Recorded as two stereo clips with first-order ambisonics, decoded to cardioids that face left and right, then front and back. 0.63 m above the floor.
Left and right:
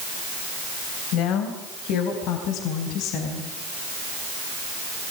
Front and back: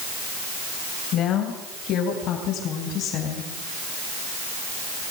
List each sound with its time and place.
1.1 s a woman speaking: 55° left, 3.5 m; by 3.5 s 50° left, 4.5 m